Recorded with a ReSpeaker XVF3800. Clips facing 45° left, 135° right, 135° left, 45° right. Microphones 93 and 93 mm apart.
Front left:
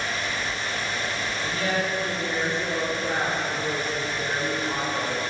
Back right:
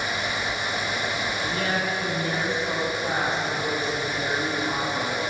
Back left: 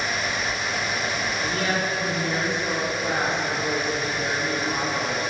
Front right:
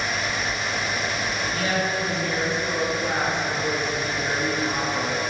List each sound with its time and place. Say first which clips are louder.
1.4 s a woman speaking: front left 1 dB, front right 1 dB; 175° left, 3 m; by 5.2 s 85° right, 4 m